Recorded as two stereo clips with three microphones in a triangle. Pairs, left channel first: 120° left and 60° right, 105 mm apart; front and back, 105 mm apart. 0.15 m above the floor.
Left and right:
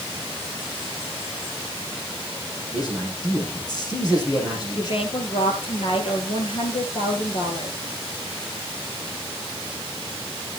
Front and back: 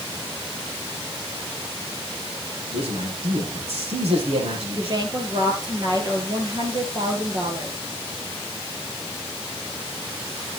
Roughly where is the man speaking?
Behind.